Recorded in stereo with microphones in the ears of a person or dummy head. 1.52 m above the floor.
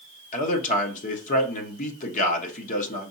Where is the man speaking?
40° left (ahead or behind), 1.0 m.